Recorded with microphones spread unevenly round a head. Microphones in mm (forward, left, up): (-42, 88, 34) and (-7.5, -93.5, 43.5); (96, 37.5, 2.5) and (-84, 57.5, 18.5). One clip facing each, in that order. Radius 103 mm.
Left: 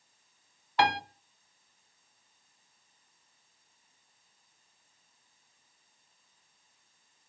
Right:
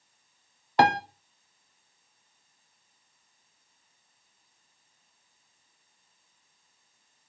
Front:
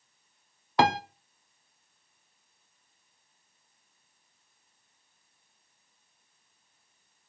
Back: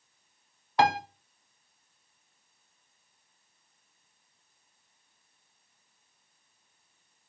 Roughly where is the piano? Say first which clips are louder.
Right 5 dB, even; ahead right.